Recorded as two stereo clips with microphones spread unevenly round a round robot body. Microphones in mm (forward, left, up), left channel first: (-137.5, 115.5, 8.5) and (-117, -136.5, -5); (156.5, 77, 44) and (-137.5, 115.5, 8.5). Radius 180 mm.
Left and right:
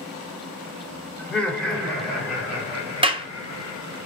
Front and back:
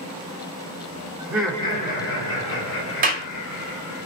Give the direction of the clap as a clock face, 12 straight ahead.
5 o'clock.